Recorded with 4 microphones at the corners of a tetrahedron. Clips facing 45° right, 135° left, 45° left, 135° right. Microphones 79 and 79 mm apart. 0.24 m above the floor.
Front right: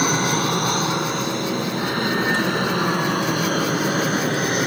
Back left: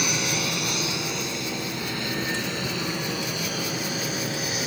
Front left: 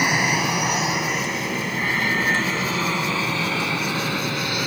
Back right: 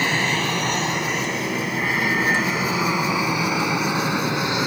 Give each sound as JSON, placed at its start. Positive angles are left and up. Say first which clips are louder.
{"t": 0.0, "sound": "an aircraft", "louder": "front right 8 dB, front left 1 dB", "azimuth_deg": -25}